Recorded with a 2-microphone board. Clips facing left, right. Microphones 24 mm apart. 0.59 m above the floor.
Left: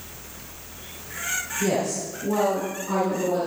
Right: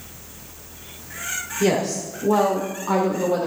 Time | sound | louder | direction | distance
1.6 | a woman speaking | right 5 dB | 45° right (ahead or behind) | 1.5 m